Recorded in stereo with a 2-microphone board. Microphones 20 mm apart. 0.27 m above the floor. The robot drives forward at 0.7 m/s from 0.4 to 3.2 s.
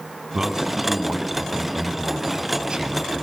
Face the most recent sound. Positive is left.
turn(degrees=-45)  # may be behind; listen again after turning